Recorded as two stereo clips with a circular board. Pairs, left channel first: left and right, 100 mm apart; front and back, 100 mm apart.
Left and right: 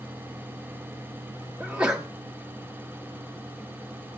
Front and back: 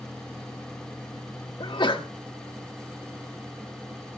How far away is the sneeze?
About 1.0 m.